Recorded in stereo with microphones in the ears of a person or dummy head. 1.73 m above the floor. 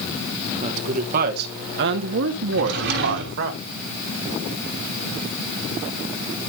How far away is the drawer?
About 3 m.